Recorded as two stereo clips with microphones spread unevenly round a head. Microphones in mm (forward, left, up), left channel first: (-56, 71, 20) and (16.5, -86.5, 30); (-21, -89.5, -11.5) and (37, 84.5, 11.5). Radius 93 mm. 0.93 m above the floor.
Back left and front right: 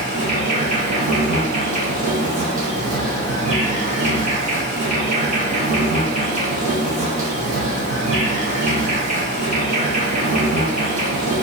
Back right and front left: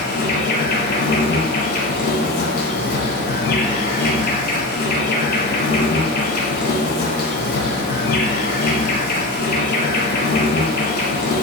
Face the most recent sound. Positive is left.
turn(degrees=-85)